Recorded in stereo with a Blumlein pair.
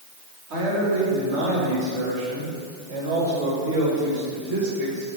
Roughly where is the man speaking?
Ahead right.